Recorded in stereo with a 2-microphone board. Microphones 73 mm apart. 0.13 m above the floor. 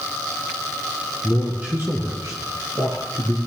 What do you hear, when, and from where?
1.2 s a man speaking: 5° right (ahead or behind), 1.5 m; by 3.4 s 65° right (ahead or behind), 3 m